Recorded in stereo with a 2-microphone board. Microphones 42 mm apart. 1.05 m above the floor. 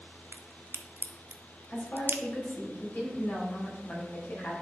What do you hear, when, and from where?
0.3 s a crack: 60° right (ahead or behind), 0.6 m
1.7 s a woman speaking: 60° left (ahead or behind), 3.5 m